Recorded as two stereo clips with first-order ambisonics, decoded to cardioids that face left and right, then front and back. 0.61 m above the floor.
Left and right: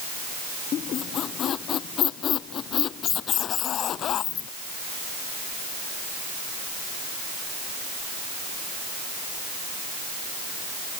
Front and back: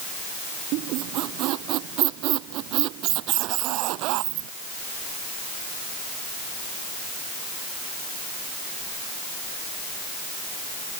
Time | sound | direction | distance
0.7 | a squeak | 145° left | ?